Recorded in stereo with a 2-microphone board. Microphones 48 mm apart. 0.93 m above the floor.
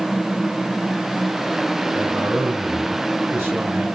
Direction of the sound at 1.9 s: 45° right (ahead or behind).